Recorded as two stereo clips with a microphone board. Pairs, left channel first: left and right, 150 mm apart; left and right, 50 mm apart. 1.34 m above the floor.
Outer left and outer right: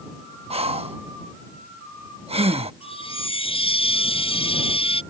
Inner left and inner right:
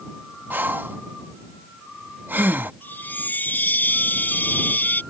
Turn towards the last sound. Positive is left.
turn(degrees=40)  # may be behind; listen again after turning